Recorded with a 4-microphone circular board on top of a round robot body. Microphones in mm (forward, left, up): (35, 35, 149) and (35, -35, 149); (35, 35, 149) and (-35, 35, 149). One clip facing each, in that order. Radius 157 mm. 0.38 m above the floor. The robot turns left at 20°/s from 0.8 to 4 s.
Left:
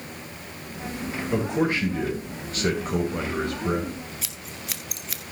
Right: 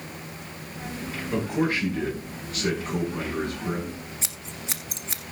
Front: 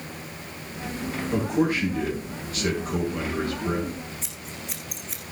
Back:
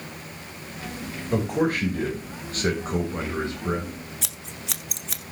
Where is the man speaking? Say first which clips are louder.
Left 1 dB, even; 160° left, 3.5 m; by 3.9 s 110° left, 3.5 m.